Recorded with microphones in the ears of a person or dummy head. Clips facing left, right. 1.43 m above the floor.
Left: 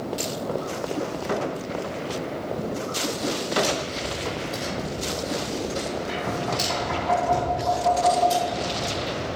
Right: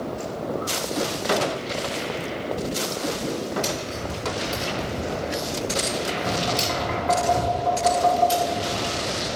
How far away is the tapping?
About 2.5 m.